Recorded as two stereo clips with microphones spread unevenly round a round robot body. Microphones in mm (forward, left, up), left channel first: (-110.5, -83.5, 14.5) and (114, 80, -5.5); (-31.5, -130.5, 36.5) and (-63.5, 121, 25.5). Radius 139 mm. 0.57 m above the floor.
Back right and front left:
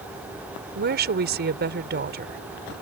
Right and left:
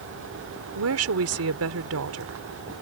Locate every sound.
0.8 s a woman speaking: 85° left